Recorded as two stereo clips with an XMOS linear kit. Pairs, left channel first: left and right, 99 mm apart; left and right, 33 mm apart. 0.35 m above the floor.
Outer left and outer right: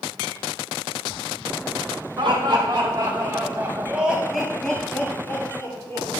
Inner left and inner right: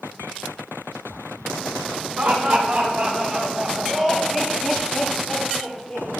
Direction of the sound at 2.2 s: 55° right (ahead or behind).